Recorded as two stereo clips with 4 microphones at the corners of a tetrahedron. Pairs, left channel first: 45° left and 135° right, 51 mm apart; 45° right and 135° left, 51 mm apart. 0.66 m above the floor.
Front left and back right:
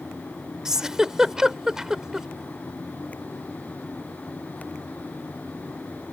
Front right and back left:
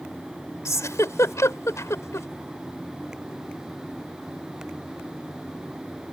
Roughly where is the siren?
I don't hear a siren.